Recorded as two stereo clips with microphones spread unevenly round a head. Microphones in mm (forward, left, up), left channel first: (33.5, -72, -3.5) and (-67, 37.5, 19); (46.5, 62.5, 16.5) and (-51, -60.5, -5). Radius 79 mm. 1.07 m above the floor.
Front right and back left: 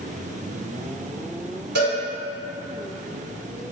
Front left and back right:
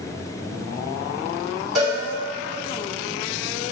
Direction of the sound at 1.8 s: 140° left.